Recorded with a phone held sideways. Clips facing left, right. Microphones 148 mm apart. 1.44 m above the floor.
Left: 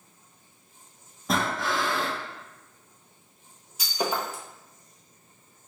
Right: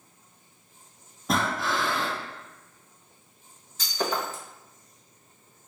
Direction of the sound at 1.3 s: Centre (ahead or behind).